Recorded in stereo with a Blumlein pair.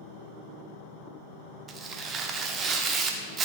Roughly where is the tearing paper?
Ahead right.